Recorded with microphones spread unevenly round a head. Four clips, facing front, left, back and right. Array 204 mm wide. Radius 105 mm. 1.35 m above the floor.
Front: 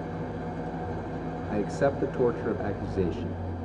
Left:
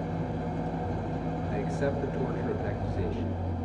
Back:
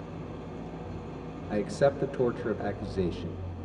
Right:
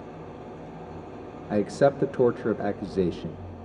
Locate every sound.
0.0 s an engine running: 75° left, 2.5 m
1.5 s a man speaking: 85° right, 1.4 m